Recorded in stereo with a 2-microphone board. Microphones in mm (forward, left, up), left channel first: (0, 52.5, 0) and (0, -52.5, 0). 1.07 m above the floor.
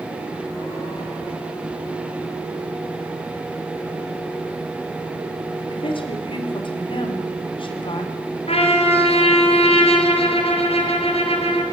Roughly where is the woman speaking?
Left.